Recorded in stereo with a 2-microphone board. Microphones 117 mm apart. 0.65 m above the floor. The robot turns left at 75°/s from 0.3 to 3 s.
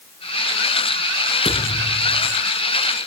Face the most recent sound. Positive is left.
turn(degrees=5)